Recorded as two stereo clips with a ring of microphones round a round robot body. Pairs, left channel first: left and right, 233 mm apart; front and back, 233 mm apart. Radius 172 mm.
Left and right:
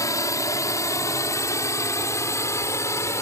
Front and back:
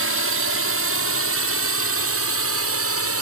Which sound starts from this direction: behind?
A drone, at 0.0 s.